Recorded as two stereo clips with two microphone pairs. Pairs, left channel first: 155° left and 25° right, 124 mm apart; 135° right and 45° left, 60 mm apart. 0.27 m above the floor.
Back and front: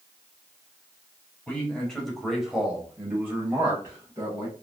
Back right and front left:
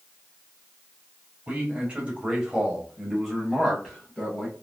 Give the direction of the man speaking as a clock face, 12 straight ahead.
9 o'clock.